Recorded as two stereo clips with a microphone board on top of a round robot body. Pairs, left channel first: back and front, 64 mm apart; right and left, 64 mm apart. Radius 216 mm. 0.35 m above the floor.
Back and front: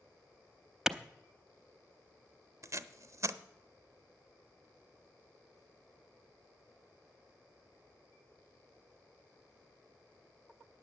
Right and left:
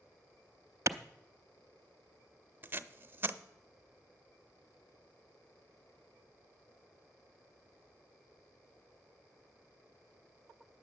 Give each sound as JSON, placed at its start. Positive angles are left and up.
{"t": 0.9, "sound": "a clap", "azimuth_deg": 80, "distance_m": 0.9}
{"t": 2.6, "sound": "tape being pulled", "azimuth_deg": 35, "distance_m": 0.7}